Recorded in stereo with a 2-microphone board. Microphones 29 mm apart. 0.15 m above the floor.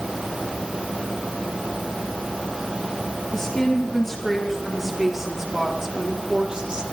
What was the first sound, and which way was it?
A woman speaking, 20° left (ahead or behind).